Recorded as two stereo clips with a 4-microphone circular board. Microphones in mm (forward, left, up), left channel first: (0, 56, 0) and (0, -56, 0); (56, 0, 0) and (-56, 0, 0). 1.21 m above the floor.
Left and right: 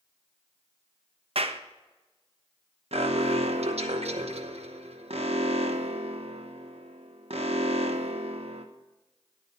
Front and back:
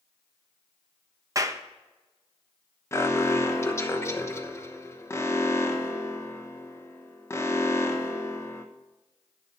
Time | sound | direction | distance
1.4 | a clap | 120° right | 0.7 m
2.9 | an alarm | 65° right | 1.0 m